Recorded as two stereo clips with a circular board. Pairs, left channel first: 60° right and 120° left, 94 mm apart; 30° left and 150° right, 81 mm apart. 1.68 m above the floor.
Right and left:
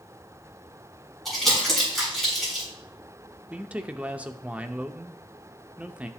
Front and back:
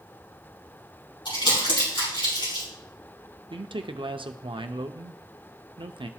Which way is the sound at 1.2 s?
30° left.